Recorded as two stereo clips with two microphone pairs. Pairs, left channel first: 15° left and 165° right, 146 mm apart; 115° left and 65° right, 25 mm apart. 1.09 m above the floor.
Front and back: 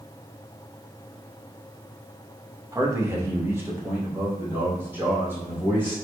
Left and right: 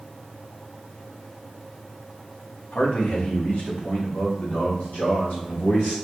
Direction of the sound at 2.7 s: 130° left.